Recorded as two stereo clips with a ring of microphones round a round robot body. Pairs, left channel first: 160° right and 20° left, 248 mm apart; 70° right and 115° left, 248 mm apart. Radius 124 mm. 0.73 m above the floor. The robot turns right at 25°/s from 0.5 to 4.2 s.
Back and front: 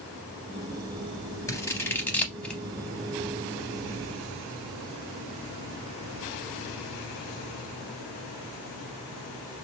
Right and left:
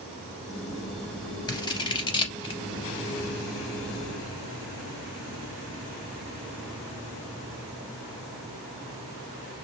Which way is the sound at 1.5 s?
105° right.